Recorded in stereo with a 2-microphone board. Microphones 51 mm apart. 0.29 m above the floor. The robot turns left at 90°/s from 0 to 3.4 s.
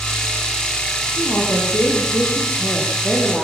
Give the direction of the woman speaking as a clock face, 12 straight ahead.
6 o'clock.